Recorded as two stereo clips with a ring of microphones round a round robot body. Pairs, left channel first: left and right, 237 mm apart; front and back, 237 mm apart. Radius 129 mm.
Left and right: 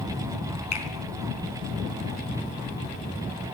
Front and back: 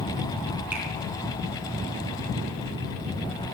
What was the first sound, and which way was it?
A finger snap, 95° left.